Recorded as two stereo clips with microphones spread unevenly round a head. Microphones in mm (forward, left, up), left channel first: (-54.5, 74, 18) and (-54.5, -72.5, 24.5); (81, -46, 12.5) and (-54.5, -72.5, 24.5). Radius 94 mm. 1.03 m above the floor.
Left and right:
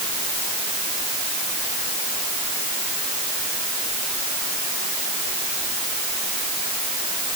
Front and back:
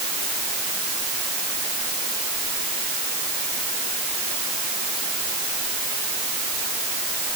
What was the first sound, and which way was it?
Only background noise.